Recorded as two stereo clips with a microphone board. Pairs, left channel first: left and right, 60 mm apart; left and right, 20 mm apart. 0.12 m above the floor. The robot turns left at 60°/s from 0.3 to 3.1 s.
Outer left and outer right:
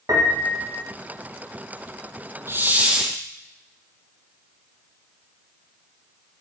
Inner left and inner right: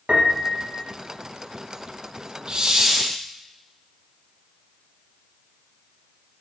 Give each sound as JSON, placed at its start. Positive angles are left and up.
{"t": 0.1, "sound": "a piano", "side_deg": -65, "distance_m": 4.0}
{"t": 2.5, "sound": "a hiss", "azimuth_deg": -135, "distance_m": 2.0}